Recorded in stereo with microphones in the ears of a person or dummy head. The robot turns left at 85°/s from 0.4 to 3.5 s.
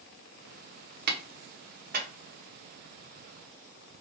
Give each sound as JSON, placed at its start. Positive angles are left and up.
{"t": 1.1, "sound": "a clap", "side_deg": -50, "distance_m": 0.7}